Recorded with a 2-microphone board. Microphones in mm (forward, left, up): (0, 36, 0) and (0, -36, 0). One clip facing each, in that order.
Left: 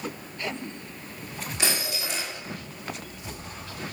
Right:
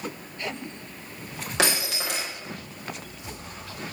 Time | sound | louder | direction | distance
1.6 | breaking glass | right 5 dB | 80° right | 7.5 m